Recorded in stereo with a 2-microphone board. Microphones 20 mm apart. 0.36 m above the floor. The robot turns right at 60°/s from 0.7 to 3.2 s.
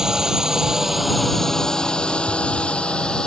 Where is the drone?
25° right (ahead or behind); by 3.3 s 45° left (ahead or behind).